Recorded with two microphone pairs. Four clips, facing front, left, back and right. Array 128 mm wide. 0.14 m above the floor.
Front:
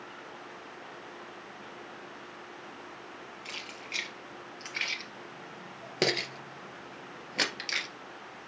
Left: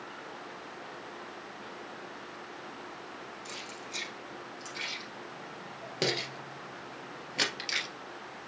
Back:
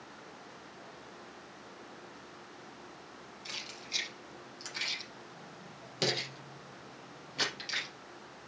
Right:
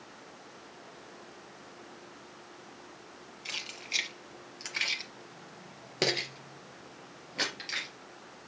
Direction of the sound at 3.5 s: 75° right.